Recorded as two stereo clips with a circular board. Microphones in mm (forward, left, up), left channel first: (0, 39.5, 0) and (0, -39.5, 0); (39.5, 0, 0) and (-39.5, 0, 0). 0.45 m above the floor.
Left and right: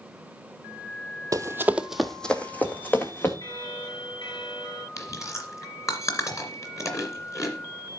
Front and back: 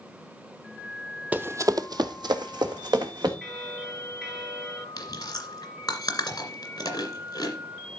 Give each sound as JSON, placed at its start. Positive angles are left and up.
{"t": 1.3, "sound": "running footsteps", "azimuth_deg": -115, "distance_m": 0.6}
{"t": 3.4, "sound": "a bell", "azimuth_deg": 95, "distance_m": 3.0}
{"t": 5.0, "sound": "chewing", "azimuth_deg": 40, "distance_m": 2.0}